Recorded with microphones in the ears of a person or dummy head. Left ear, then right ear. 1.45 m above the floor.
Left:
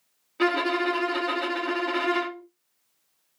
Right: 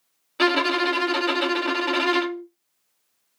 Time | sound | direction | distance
0.4 | a violin | 30° right (ahead or behind) | 0.6 m